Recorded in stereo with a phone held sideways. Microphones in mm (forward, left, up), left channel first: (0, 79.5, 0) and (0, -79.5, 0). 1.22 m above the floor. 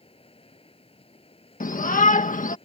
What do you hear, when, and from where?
0.0 s running water: 35° left (ahead or behind)
1.6 s a shout: 60° left (ahead or behind)